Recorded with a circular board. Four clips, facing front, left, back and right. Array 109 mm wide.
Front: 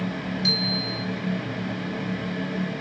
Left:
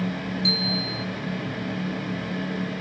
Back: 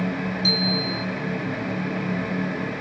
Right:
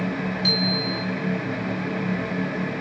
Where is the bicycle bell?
50° right, 5 m.